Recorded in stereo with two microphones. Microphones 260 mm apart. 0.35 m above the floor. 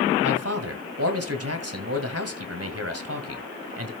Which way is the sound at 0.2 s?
55° right (ahead or behind).